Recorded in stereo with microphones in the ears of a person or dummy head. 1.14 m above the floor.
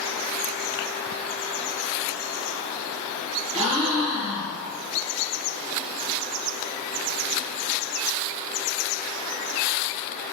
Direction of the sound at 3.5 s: 30° right (ahead or behind).